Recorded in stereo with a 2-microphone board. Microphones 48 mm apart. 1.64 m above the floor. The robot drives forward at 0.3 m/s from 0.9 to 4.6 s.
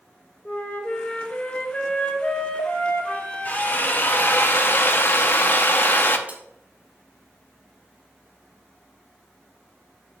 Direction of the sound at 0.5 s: 30° left (ahead or behind).